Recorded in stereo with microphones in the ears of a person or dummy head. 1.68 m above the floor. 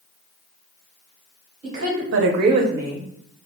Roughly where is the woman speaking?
Right.